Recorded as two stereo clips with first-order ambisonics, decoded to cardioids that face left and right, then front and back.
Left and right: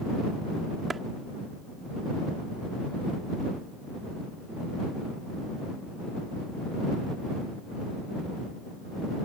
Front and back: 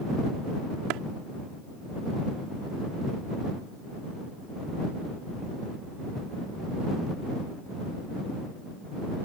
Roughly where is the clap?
Behind.